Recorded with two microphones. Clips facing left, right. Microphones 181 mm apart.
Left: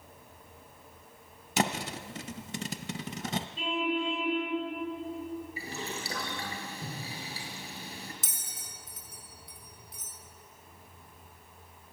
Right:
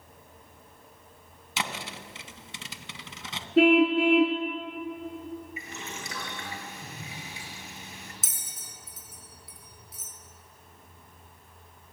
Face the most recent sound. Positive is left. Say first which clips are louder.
# even
turn(degrees=0)  # may be behind; listen again after turning